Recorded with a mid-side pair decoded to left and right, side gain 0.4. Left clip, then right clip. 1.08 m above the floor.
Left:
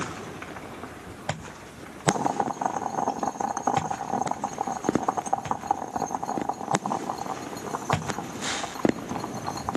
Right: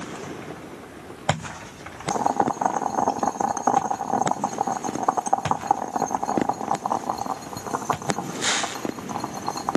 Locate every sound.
2.1 s boiling: 35° right